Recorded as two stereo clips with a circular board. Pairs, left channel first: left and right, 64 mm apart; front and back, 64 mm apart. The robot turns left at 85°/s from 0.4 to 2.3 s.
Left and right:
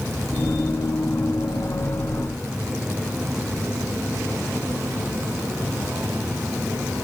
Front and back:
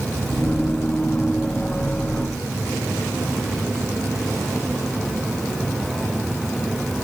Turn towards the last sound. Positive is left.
No sound to turn to.